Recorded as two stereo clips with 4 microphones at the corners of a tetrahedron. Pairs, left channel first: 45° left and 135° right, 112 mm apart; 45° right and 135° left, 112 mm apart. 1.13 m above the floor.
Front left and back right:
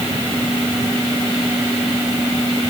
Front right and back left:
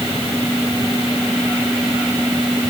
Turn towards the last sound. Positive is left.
No sound to turn to.